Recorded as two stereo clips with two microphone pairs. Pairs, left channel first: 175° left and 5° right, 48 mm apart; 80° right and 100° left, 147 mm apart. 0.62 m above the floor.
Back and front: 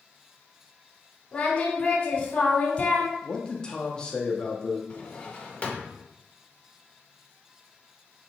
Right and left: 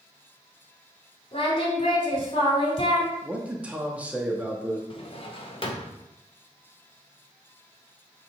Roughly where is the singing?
Behind right.